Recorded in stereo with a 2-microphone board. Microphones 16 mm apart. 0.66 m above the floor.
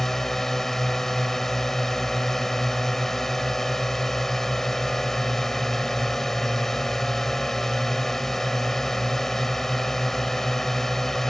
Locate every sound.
0.0 s a drone: 20° left (ahead or behind)